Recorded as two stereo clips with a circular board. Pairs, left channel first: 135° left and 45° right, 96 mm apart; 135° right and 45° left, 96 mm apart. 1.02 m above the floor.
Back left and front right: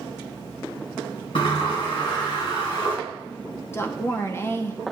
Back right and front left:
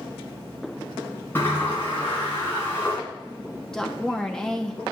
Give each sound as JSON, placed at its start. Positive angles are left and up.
{"t": 1.4, "sound": "a sliding door", "azimuth_deg": 160, "distance_m": 2.5}
{"t": 3.7, "sound": "a woman speaking", "azimuth_deg": 150, "distance_m": 0.6}